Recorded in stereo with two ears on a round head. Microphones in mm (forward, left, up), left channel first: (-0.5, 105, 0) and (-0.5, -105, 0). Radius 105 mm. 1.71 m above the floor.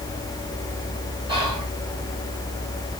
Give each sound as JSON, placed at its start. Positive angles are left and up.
{"t": 1.3, "sound": "whispering", "side_deg": -20, "distance_m": 7.5}